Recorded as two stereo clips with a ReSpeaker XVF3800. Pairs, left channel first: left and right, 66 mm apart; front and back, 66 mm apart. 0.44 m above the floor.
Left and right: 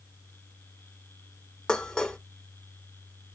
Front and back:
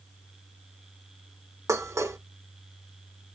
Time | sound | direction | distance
1.7 | dishes clattering | 165° left | 0.5 m